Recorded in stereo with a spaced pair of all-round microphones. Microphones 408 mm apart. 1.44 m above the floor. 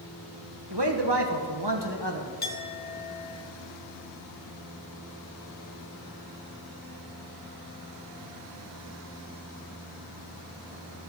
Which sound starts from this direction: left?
A clink, at 2.4 s.